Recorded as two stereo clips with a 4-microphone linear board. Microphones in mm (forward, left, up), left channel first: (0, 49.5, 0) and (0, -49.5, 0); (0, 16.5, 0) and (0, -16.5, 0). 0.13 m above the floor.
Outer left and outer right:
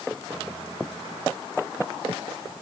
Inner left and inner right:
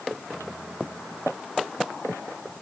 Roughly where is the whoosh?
No whoosh in this recording.